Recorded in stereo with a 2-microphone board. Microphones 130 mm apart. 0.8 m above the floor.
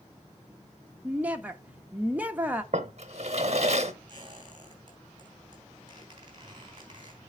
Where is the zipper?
I don't hear a zipper.